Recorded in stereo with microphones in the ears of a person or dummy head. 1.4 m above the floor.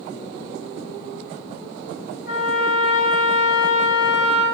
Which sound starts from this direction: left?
A trumpet, at 2.3 s.